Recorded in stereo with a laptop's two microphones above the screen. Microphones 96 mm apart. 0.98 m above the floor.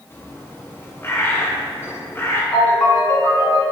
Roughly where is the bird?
Left.